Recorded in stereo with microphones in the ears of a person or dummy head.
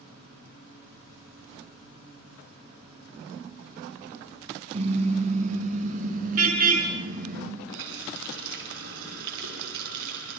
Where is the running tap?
70° right (ahead or behind), 7 m.